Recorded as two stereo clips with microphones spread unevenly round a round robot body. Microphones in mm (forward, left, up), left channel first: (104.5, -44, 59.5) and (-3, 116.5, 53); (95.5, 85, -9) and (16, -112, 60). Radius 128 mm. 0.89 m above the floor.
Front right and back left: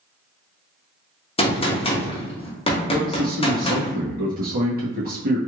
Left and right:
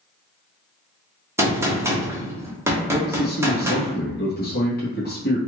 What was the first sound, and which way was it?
A gunshot, 15° right.